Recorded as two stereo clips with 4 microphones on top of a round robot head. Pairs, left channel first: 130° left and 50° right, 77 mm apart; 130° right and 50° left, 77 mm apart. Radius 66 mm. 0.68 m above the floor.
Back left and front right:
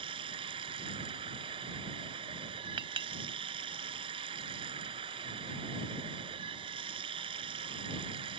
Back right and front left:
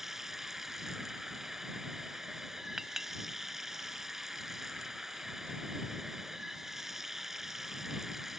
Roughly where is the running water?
Ahead right.